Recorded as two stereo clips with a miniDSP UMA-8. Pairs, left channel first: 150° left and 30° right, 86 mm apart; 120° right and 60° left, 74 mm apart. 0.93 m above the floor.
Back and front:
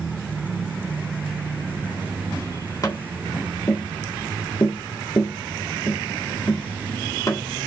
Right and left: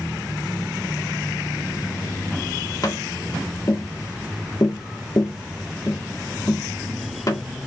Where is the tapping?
160° right, 1.8 m.